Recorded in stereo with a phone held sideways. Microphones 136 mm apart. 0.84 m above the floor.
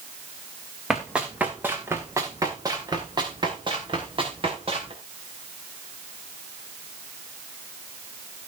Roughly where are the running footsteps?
Centre.